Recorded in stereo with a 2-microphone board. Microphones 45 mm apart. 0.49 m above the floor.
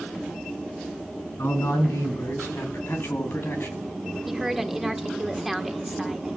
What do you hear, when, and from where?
1.4 s a man speaking: 80° left, 4 m; by 3.9 s 55° left (ahead or behind), 3 m
4.3 s a woman speaking: 5° right (ahead or behind), 1.6 m